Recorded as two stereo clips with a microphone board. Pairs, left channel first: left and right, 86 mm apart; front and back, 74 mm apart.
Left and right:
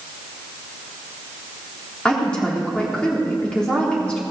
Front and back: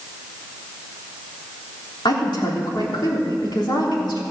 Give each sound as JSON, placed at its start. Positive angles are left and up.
{"t": 2.0, "sound": "a woman speaking", "azimuth_deg": 10, "distance_m": 3.0}